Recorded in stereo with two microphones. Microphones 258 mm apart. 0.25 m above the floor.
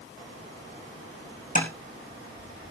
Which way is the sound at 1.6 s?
35° left (ahead or behind).